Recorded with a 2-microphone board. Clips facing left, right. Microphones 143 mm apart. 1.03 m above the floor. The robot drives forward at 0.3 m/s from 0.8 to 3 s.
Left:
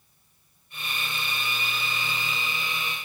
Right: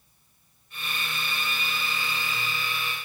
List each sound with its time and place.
Only background noise.